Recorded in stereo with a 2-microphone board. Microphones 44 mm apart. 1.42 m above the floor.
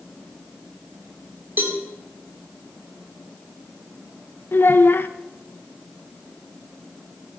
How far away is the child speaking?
About 0.7 m.